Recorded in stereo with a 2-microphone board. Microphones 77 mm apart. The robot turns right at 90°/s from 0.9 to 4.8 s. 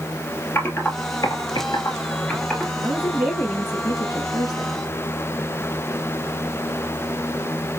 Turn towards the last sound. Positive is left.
turn(degrees=140)